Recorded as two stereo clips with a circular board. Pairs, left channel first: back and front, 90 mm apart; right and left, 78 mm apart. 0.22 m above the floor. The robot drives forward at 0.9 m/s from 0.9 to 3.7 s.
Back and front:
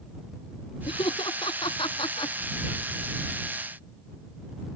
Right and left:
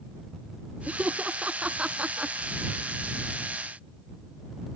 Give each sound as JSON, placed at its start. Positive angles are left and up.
{"t": 0.9, "sound": "laughter", "azimuth_deg": 160}